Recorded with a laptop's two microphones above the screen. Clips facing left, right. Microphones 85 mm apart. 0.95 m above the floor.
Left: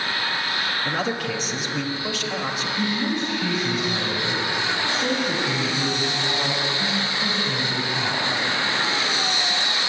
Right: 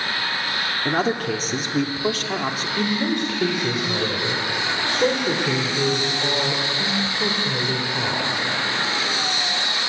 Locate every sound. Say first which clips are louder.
0.8 s a man speaking: right 6 dB; 45° right (ahead or behind), 2 m
2.8 s a man speaking: right 3 dB; 80° right, 3 m